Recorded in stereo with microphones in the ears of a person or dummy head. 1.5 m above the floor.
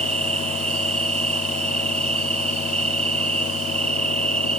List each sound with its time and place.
0.0 s an insect: 35° right (ahead or behind)